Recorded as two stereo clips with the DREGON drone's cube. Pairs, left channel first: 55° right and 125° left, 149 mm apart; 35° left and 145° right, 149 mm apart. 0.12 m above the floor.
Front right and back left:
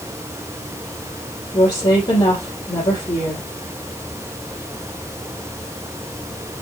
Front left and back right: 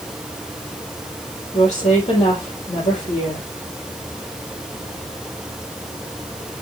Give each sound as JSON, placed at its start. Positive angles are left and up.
{"t": 1.5, "sound": "a woman speaking", "azimuth_deg": -5, "distance_m": 3.5}